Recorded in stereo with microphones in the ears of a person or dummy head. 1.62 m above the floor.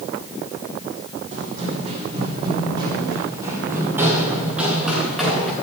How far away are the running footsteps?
About 4.5 m.